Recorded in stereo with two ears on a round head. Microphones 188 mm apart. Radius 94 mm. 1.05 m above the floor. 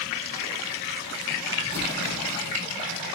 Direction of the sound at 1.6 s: 50° right (ahead or behind).